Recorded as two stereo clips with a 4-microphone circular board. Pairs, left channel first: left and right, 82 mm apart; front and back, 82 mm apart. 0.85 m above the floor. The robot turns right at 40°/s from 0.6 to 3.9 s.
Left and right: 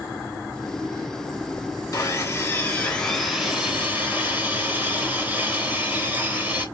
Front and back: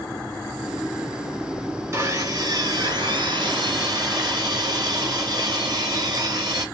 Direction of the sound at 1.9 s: 125° left.